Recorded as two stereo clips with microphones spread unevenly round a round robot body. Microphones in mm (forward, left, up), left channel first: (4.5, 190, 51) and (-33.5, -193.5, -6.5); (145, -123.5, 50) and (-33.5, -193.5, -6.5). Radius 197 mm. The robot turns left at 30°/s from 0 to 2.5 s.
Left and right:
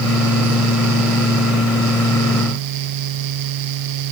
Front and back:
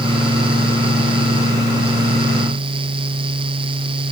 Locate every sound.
Only background noise.